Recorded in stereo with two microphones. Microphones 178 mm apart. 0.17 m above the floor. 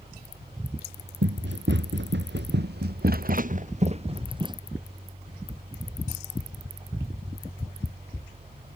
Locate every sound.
1.2 s running footsteps: 80° right; by 4.6 s 25° right (ahead or behind)